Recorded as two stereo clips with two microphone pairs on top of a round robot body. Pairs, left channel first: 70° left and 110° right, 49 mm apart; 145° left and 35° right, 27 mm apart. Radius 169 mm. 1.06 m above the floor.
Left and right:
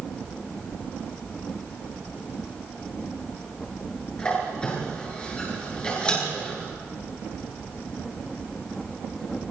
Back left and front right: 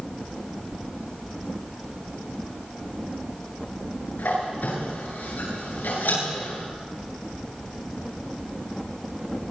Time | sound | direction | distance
4.2 | a squeak | 135° left | 10 m